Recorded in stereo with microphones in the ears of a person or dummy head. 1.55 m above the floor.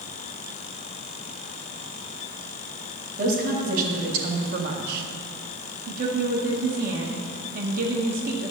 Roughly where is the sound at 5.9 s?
Right.